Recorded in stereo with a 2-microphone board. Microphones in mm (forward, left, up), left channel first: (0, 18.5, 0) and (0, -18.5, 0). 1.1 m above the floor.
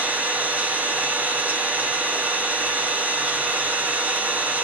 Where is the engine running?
50° right (ahead or behind), 1.1 m.